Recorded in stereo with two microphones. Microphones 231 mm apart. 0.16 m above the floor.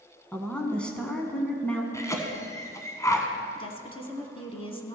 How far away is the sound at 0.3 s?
About 1.2 m.